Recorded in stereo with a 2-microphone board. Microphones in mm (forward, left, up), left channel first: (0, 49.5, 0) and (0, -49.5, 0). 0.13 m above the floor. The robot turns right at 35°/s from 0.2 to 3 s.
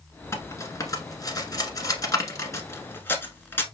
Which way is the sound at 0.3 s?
30° left (ahead or behind).